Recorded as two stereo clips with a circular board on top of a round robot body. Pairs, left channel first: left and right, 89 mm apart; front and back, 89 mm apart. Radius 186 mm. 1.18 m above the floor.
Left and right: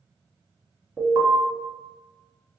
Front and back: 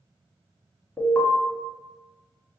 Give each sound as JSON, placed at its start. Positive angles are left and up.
{"t": 1.0, "sound": "an alarm", "azimuth_deg": -60, "distance_m": 1.6}